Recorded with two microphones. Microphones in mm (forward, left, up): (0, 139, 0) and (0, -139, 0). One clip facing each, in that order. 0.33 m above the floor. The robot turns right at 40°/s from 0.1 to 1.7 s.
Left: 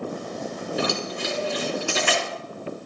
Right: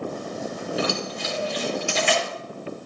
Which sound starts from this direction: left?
Keys jangling, at 0.8 s.